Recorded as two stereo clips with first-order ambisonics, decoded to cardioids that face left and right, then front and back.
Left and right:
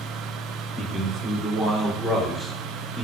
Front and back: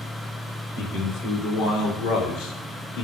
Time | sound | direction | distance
0.8 | a man speaking | 25° right | 2.5 m